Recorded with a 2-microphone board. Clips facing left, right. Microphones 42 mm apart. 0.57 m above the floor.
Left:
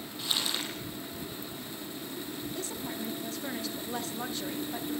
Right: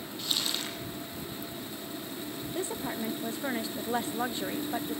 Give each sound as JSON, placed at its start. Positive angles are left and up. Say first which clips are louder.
{"t": 0.2, "sound": "crumpling", "louder": "left 1 dB", "side_deg": 5, "distance_m": 9.5}
{"t": 2.5, "sound": "a woman speaking", "louder": "right 7 dB", "side_deg": -25, "distance_m": 0.7}